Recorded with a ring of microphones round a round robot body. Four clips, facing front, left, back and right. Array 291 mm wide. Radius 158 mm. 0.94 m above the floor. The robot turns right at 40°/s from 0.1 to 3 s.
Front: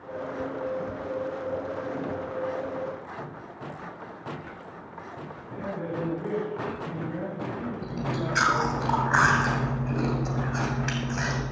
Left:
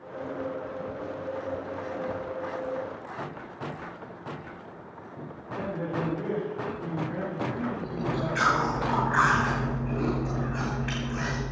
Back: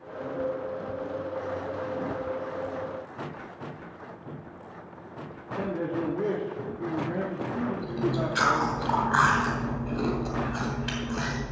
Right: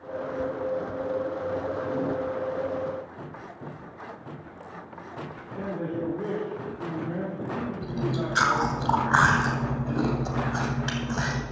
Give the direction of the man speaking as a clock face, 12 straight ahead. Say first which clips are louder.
Even, back 3 dB; 6 o'clock.